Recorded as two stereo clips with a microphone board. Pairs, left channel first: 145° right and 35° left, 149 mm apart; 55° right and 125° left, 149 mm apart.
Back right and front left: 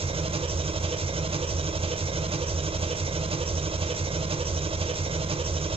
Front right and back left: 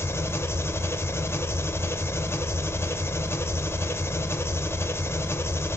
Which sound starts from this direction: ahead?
An engine running, at 0.0 s.